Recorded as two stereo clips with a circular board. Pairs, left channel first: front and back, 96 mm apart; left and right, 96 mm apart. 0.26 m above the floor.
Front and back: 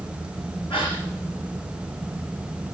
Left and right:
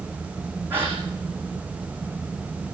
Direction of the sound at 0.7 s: 20° right.